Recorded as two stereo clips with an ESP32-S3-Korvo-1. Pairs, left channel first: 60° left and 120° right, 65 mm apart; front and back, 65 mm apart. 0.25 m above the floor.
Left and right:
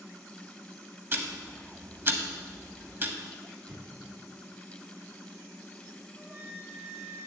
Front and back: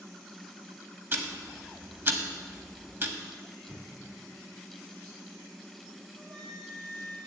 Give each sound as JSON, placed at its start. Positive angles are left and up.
{"t": 1.1, "sound": "ticking", "azimuth_deg": -150, "distance_m": 0.8}
{"t": 3.7, "sound": "an explosion", "azimuth_deg": -115, "distance_m": 2.5}
{"t": 6.2, "sound": "a flute", "azimuth_deg": 175, "distance_m": 2.0}